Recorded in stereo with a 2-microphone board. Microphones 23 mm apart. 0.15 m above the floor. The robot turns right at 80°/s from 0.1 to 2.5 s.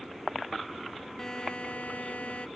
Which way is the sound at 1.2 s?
20° left.